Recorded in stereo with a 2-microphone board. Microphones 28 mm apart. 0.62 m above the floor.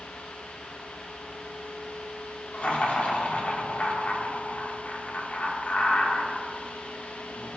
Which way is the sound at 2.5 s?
55° left (ahead or behind).